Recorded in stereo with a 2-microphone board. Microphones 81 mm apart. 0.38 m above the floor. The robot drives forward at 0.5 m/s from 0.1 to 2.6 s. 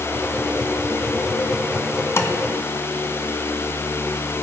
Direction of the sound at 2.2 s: 30° left (ahead or behind).